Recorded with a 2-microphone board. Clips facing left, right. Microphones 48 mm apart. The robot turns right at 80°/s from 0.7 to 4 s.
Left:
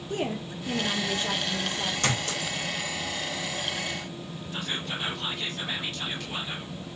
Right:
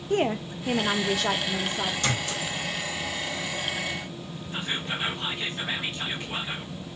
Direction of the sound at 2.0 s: 45° left (ahead or behind).